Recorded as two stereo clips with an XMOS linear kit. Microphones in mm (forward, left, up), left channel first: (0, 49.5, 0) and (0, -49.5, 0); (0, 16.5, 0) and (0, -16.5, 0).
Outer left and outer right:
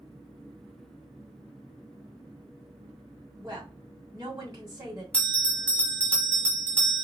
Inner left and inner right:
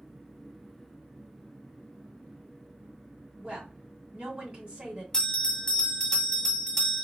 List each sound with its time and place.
3.4 s a woman speaking: 35° right (ahead or behind), 2 m
5.1 s a bell: 15° left (ahead or behind), 1.1 m